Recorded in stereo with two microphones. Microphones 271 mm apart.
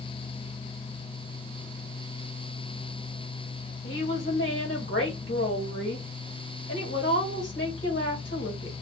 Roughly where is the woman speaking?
Left.